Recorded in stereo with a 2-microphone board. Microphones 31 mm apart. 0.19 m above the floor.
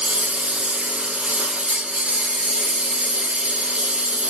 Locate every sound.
0.0 s a lawn mower: 45° right (ahead or behind)